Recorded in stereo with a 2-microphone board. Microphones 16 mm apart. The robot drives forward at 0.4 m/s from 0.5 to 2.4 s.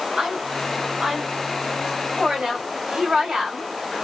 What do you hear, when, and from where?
0.2 s a woman speaking: 50° right (ahead or behind), 2.5 m; by 3.7 s 60° right (ahead or behind), 2 m